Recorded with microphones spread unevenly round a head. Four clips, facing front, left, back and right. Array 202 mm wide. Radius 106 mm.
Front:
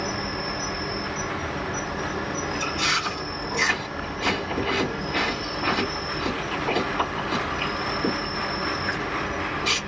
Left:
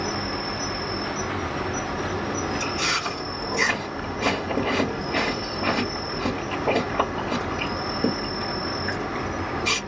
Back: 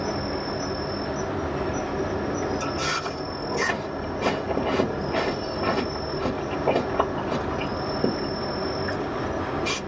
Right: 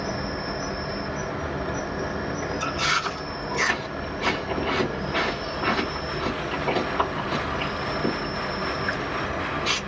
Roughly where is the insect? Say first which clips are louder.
Left 1 dB, back 2 dB; behind left.